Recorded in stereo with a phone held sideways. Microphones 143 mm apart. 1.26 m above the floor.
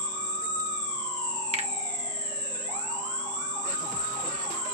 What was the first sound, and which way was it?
An insect, 35° left (ahead or behind).